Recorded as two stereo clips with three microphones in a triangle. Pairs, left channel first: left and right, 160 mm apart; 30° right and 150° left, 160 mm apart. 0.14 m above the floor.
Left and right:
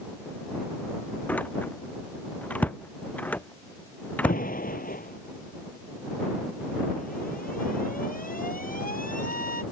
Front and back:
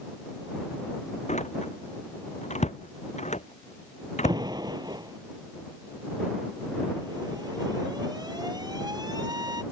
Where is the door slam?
10° left.